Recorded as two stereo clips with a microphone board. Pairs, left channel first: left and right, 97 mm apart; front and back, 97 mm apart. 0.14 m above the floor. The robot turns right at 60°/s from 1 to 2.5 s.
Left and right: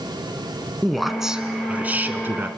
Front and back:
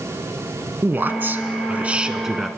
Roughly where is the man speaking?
Behind.